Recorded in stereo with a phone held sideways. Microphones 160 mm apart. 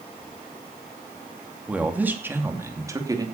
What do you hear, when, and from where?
1.7 s a man speaking: 5° right (ahead or behind), 2.5 m; by 3.2 s 25° right (ahead or behind), 3 m